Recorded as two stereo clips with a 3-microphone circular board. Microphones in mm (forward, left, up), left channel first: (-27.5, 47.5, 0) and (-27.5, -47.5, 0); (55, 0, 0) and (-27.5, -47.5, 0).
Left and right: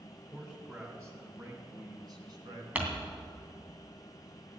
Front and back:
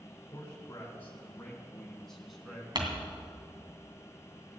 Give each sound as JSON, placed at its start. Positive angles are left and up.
{"t": 0.3, "sound": "a man speaking", "azimuth_deg": -15, "distance_m": 2.5}
{"t": 2.8, "sound": "crumpling", "azimuth_deg": -160, "distance_m": 2.5}